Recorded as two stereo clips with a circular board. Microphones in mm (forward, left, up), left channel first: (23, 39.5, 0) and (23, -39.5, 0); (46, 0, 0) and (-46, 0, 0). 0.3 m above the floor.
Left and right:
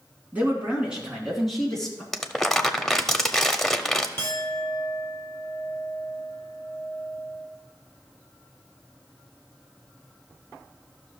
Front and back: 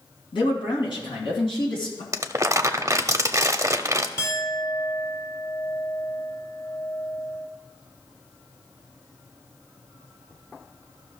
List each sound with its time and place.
0.3 s a man speaking: 20° right, 3 m; by 2.0 s 10° left, 3.5 m
2.1 s crumpling: 170° left, 0.7 m
4.2 s a clink: 50° left, 1.1 m